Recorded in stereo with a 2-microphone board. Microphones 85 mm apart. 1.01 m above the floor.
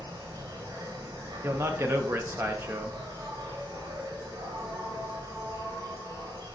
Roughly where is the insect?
Right.